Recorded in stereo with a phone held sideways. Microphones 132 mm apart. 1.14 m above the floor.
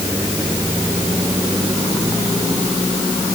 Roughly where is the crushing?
No crushing in this recording.